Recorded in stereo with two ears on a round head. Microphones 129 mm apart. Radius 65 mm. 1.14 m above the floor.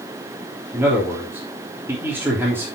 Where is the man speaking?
15° right (ahead or behind), 3 m.